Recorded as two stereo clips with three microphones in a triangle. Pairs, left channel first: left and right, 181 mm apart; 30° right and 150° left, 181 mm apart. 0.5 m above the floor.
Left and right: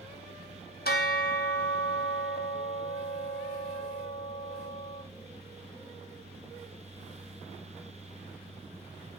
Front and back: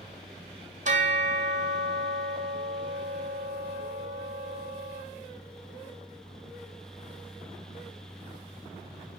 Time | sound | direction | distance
0.8 | a bell | 110° left | 1.7 m